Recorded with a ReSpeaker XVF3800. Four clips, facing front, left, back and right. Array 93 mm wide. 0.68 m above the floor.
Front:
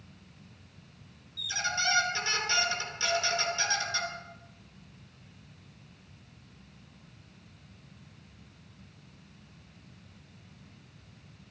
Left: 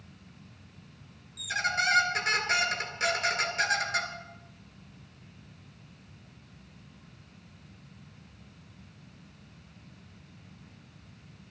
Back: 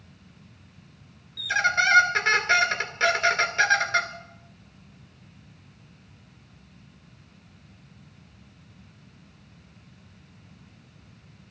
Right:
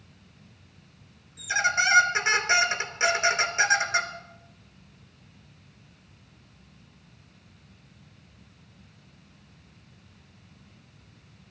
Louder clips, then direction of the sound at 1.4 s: Right 5 dB, back 10 dB; 155° right.